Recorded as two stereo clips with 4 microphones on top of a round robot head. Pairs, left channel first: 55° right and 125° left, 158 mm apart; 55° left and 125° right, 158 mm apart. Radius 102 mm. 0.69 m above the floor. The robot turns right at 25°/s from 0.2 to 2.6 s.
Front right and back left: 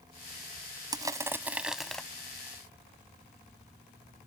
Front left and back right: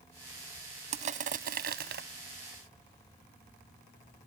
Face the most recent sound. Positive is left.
turn(degrees=-130)